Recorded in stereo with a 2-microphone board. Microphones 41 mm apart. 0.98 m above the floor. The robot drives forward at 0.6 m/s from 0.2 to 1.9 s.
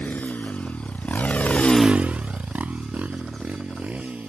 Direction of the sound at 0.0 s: 45° left (ahead or behind).